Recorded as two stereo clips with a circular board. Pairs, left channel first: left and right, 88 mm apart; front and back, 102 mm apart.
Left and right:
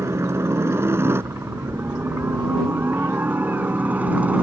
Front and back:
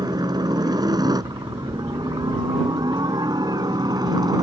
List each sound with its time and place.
0.0 s a helicopter: 145° right; by 4.4 s 160° right